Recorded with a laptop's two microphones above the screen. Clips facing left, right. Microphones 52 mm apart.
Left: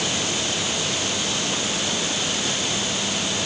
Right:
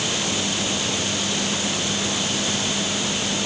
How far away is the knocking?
I don't hear knocking.